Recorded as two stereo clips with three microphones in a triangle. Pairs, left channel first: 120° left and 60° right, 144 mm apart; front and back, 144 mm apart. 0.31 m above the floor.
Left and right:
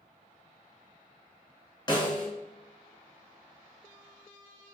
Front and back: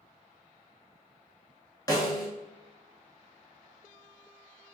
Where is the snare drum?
60° left, 1.1 m.